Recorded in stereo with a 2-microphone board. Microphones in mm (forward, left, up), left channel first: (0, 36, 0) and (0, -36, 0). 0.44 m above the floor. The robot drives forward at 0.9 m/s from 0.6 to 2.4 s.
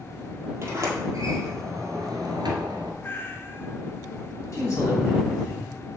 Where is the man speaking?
40° left (ahead or behind), 3 m.